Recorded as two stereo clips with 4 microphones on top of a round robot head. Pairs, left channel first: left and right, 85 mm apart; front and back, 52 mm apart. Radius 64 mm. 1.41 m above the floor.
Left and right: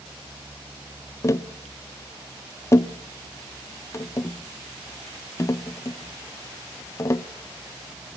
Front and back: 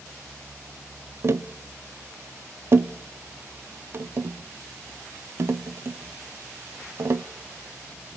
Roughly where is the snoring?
I don't hear snoring.